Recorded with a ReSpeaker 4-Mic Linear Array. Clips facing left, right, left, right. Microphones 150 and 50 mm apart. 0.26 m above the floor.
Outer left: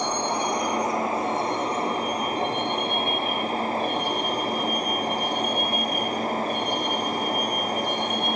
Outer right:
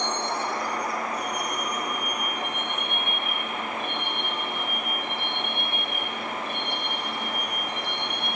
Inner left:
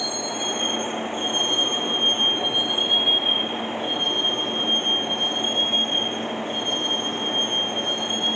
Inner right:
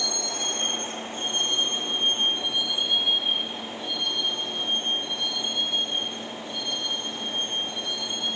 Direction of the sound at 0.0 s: 10° left (ahead or behind).